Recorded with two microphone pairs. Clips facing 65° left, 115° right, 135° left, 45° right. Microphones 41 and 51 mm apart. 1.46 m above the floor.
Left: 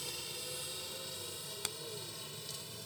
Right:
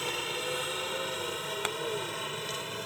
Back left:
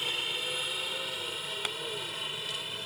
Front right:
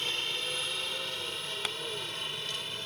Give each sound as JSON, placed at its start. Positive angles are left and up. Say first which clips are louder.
{"t": 0.0, "sound": "a helicopter", "louder": "right 12 dB, even", "azimuth_deg": -145}
{"t": 1.6, "sound": "tapping", "louder": "right 10 dB, even", "azimuth_deg": -145}